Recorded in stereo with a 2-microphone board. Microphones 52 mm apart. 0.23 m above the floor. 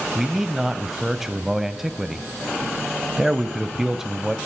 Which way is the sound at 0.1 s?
5° right (ahead or behind).